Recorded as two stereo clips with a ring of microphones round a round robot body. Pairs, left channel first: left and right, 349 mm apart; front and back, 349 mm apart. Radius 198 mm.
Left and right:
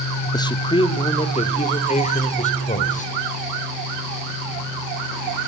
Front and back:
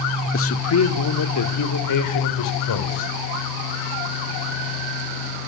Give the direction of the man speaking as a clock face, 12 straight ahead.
11 o'clock.